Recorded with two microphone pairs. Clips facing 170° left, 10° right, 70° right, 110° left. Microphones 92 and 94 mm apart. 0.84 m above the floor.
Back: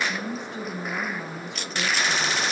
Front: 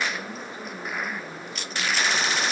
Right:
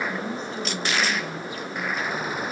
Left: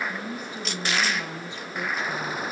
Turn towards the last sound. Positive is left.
turn(degrees=155)